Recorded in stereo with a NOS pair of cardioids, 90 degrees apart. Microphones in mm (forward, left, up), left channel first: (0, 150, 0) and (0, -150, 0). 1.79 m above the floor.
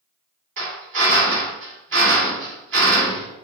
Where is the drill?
45° right, 2 m.